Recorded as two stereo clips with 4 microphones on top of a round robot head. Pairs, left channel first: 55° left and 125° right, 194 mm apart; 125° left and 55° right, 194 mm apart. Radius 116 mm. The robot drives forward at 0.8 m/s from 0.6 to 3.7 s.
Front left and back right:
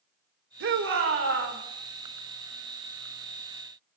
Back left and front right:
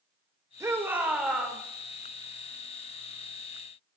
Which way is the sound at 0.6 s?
125° right.